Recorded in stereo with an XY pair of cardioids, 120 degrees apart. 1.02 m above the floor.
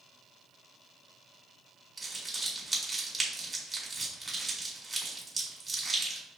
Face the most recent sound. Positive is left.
turn(degrees=-15)